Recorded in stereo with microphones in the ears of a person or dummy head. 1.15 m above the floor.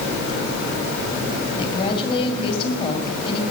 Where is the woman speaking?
35° left (ahead or behind), 5.5 m.